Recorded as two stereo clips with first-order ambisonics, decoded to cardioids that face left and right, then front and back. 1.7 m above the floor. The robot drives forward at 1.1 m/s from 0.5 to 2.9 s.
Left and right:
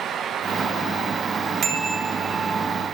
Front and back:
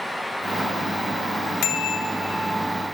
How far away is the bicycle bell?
About 3 m.